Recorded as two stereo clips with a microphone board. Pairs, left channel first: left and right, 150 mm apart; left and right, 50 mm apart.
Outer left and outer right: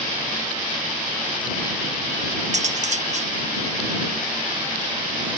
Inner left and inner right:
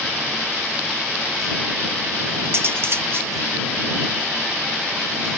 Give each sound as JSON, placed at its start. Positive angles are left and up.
{"t": 2.5, "sound": "cutlery clinking", "side_deg": -50}